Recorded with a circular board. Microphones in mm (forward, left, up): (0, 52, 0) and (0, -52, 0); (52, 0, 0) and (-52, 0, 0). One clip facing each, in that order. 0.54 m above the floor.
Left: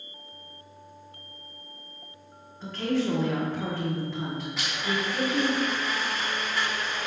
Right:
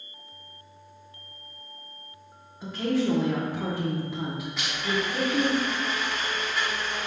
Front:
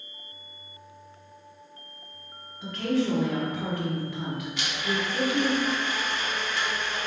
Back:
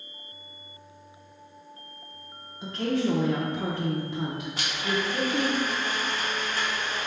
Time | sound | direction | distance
2.6 | a woman speaking | 155° right | 0.8 m
4.6 | a blender | straight behind | 1.0 m